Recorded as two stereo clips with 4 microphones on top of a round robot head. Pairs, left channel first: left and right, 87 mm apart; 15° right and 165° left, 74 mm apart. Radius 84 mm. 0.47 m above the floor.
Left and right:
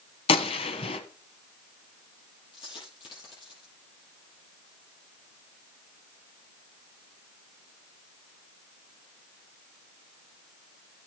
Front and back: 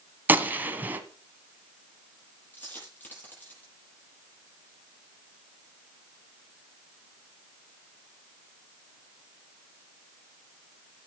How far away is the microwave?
I don't hear a microwave.